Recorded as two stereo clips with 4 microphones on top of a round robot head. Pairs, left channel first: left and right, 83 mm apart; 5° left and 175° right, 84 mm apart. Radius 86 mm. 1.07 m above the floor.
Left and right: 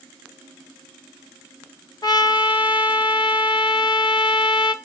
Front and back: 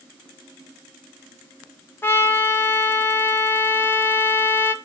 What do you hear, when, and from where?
2.0 s a trumpet: 65° left, 1.8 m